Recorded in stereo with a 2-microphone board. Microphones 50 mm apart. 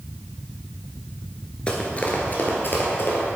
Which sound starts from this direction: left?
Running footsteps, at 1.7 s.